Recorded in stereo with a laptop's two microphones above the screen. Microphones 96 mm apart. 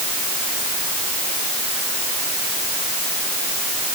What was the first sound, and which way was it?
Only background noise.